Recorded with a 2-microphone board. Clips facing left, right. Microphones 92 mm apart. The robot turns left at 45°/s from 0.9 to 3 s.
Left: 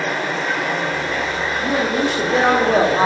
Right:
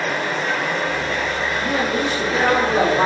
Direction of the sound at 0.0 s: 175° left.